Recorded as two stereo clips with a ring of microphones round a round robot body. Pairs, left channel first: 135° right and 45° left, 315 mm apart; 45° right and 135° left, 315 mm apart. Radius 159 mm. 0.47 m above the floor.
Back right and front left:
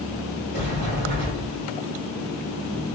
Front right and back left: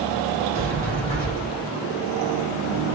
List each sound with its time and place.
0.5 s a sliding door: 100° left, 1.6 m